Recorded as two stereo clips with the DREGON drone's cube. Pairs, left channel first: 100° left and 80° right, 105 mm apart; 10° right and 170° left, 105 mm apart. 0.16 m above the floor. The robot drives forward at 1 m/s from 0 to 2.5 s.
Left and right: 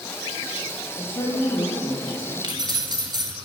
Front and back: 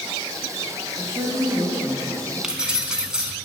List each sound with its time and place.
1.0 s a woman speaking: 135° left, 3.5 m; by 2.3 s 145° left, 5 m
2.4 s keys jangling: 105° right, 1.1 m; by 3.3 s 110° right, 1.1 m